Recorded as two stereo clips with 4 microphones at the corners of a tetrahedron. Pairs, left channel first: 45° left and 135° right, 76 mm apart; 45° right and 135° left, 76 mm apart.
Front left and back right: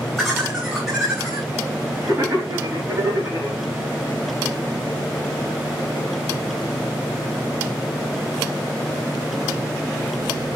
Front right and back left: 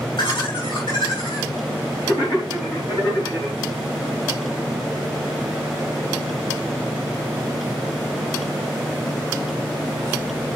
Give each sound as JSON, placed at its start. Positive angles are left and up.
{"t": 0.2, "sound": "laughter", "azimuth_deg": -40, "distance_m": 4.0}